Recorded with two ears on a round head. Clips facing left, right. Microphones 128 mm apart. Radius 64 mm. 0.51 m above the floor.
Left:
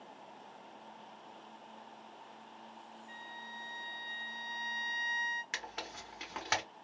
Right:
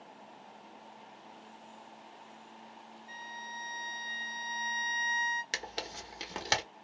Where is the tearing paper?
40° right (ahead or behind), 0.8 m.